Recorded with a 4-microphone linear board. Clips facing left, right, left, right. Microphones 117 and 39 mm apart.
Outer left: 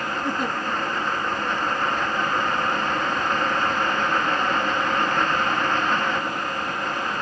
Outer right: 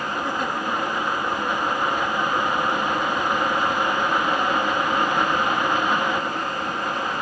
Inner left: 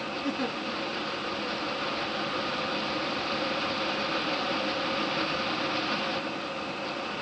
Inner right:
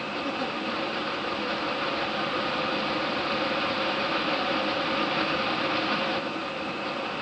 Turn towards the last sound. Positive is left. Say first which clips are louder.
# outer left 2 dB, inner left 1 dB
turn(degrees=-5)  # may be behind; listen again after turning